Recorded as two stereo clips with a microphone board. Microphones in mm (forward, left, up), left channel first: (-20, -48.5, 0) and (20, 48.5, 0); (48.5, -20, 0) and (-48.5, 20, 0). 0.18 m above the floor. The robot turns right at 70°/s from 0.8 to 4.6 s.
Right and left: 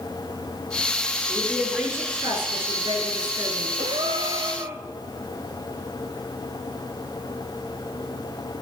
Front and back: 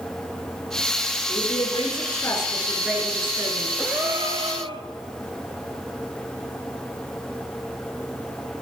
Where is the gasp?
75° left, 1.0 m; by 4.8 s 130° left, 1.0 m.